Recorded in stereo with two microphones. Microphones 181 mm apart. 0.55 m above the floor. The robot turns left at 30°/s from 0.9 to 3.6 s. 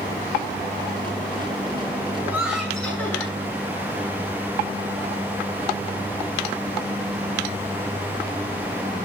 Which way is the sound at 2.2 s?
165° right.